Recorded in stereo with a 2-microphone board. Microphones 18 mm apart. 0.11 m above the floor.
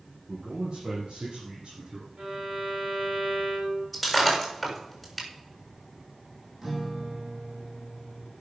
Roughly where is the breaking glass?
Centre.